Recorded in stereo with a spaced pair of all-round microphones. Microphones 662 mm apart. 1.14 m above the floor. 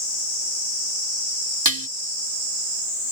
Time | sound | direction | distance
1.6 | dishes clattering | 30° right (ahead or behind) | ?